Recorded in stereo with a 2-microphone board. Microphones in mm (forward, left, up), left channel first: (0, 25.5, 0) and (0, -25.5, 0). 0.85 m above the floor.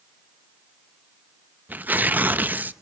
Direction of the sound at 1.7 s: 35° right (ahead or behind).